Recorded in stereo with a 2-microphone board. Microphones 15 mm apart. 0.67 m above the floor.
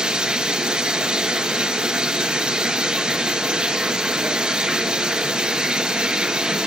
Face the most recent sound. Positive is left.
turn(degrees=-65)  # may be behind; listen again after turning